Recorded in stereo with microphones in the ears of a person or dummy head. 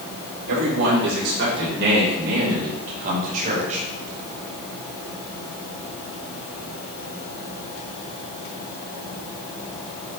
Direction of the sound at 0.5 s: 70° right (ahead or behind).